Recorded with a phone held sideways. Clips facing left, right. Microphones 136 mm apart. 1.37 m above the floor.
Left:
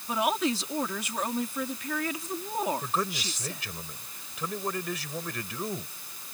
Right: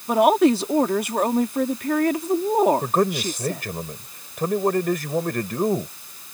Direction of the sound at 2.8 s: 60° right (ahead or behind).